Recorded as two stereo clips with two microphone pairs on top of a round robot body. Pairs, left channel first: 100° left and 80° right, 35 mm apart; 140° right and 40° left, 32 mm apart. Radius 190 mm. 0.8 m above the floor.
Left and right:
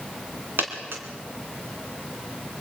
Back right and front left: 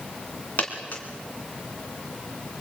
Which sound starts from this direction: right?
A dropped coin, at 0.6 s.